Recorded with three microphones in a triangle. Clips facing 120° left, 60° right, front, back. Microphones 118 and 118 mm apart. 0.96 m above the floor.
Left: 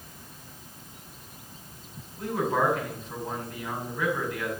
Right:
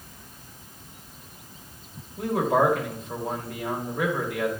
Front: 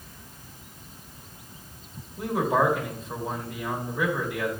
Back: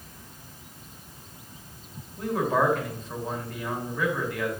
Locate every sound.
2.2 s a man speaking: 80° right, 1.9 m